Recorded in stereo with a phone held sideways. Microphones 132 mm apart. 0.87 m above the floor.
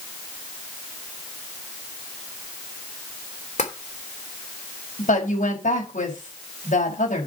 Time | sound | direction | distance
3.6 | tapping | 70° left (ahead or behind) | 3 m
5.0 | a woman speaking | 85° left | 5.5 m